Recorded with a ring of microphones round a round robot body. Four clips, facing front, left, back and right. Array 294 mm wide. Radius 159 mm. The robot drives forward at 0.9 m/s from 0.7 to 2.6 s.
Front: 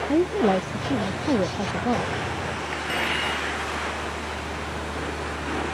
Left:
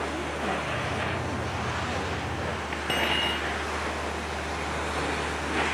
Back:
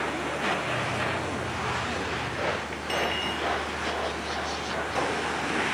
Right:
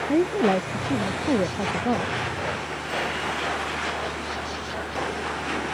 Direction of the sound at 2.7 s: 70° left.